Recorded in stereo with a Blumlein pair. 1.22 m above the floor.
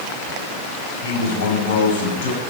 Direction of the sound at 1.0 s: 65° left.